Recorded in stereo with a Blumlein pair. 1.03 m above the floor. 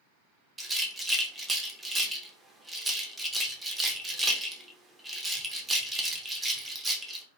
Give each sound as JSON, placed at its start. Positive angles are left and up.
{"t": 0.6, "sound": "a rattle", "azimuth_deg": -10, "distance_m": 0.6}